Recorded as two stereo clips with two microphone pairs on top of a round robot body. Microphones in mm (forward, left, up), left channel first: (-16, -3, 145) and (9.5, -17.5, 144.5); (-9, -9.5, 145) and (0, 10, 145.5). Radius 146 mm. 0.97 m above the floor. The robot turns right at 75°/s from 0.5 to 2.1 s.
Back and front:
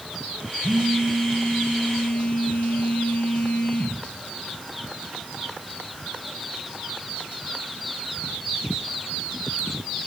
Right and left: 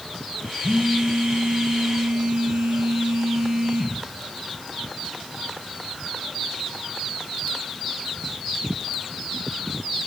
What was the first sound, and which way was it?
A phone buzzing, 10° left.